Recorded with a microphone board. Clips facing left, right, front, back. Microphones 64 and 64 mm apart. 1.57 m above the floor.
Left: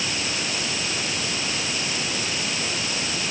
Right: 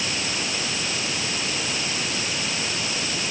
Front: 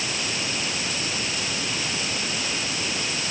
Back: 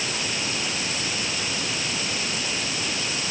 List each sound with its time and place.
Only background noise.